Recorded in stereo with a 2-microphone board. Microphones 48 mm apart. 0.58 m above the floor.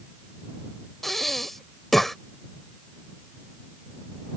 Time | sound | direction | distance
1.0 | breathing | 5° left (ahead or behind) | ?